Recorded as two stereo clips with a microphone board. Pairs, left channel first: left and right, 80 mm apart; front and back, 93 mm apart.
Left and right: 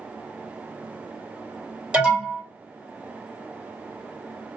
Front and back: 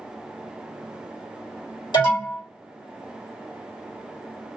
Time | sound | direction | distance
1.9 | an alarm | 15° right | 2.5 m